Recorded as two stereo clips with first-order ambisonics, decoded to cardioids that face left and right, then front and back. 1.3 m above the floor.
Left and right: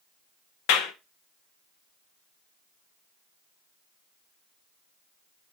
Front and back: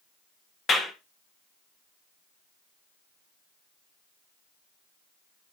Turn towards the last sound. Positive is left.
turn(degrees=70)